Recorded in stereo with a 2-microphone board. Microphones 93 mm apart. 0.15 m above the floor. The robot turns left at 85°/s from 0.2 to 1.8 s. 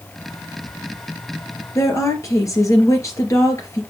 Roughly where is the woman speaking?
Left.